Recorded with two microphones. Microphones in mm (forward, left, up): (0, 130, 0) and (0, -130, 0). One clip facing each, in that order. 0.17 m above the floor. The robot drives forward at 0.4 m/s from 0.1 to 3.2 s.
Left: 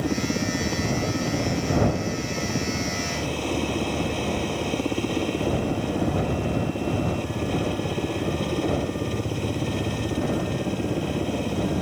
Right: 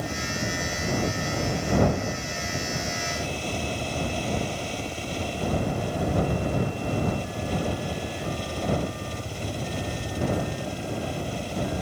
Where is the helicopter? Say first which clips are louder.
Left 7 dB; 70° left (ahead or behind).